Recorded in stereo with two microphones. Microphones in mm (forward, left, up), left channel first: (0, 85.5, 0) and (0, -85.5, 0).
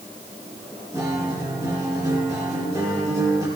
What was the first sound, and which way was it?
A guitar, 20° right (ahead or behind).